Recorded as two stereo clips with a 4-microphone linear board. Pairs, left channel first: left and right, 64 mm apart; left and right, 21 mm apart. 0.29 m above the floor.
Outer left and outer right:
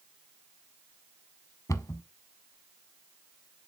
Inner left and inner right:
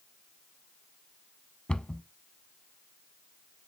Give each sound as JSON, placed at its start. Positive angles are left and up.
{"t": 1.7, "sound": "a cupboard door", "side_deg": 50, "distance_m": 0.6}